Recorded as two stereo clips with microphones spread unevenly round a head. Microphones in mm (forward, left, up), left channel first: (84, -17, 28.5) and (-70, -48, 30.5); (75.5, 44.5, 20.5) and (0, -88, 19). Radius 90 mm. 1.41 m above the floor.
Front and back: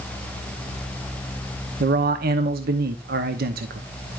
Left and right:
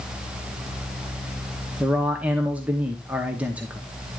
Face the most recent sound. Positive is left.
turn(degrees=160)